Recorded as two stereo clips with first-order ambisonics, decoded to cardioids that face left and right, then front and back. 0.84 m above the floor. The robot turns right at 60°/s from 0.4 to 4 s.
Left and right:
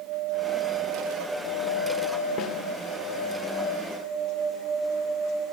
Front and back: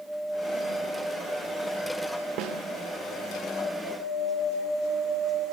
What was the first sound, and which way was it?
A snare drum, 140° left.